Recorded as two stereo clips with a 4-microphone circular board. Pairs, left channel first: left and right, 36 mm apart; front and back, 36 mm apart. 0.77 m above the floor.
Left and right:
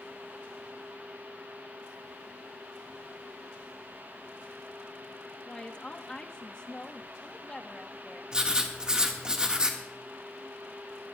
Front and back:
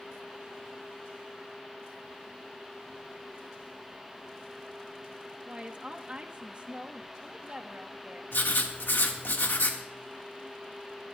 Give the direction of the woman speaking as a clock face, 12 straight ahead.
7 o'clock.